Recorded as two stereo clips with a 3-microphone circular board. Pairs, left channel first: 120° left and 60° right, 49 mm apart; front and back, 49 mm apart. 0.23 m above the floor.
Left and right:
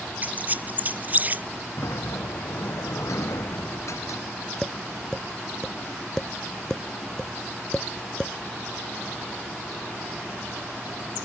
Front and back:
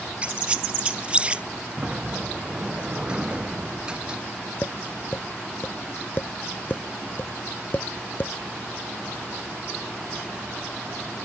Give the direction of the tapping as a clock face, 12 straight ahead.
10 o'clock.